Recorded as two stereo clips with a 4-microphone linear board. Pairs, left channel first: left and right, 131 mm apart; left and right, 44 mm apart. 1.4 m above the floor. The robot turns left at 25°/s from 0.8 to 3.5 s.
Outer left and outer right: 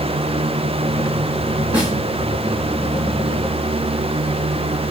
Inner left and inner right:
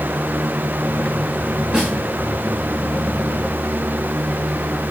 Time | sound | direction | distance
1.7 | a snare drum | 10° right (ahead or behind) | 8.5 m